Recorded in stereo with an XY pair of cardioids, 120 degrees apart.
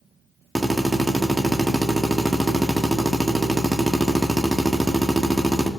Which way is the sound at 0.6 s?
10° right.